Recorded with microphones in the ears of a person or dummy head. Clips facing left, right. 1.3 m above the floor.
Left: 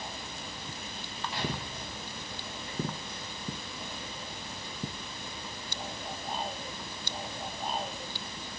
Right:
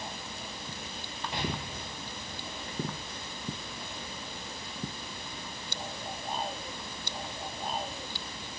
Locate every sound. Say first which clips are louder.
1.3 s an explosion: right 2 dB; 20° right (ahead or behind), 8.5 m